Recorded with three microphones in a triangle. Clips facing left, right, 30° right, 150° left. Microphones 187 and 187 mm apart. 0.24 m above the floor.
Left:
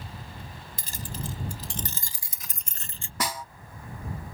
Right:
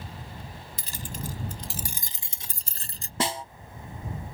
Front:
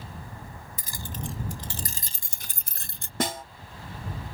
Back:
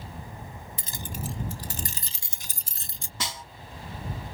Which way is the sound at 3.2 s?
35° right.